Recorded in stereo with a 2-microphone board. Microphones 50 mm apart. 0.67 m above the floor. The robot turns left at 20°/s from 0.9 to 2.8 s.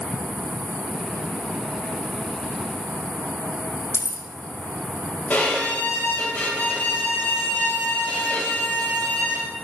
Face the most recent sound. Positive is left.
turn(degrees=30)  # may be behind; listen again after turning